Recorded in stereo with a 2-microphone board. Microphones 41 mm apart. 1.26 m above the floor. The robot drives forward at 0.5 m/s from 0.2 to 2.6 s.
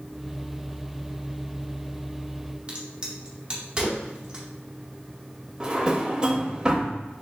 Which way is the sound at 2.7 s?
25° right (ahead or behind).